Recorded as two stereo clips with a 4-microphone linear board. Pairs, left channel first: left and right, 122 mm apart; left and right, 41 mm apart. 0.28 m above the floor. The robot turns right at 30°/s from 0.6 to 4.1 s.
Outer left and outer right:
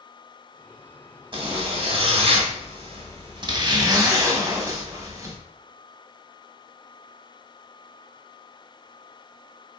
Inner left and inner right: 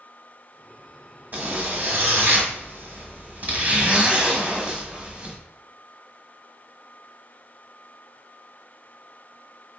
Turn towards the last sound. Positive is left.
turn(degrees=-40)